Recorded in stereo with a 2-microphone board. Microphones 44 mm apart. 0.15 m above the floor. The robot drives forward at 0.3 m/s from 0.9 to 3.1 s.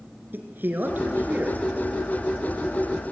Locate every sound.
0.3 s a man speaking: 50° right (ahead or behind), 2 m; by 1.6 s 45° right (ahead or behind), 2.5 m